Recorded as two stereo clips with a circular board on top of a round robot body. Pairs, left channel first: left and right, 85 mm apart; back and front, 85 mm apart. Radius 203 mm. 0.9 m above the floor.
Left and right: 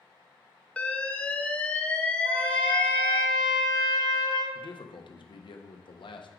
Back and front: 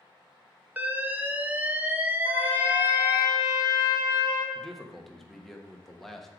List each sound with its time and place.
0.8 s an alarm: 40° left, 1.1 m
2.2 s a trumpet: 125° right, 1.1 m
4.5 s a man speaking: 95° left, 1.1 m